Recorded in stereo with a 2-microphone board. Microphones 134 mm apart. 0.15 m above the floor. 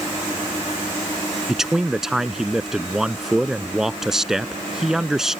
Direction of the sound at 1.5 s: 5° right (ahead or behind).